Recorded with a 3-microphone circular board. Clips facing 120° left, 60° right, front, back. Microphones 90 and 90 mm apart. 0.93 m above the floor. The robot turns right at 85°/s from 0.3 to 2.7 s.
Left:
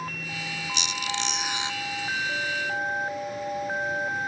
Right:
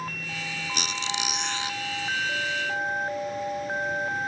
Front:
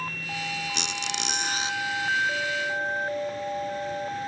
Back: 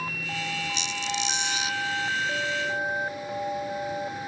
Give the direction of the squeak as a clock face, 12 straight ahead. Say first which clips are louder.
Even, back 1 dB; 1 o'clock.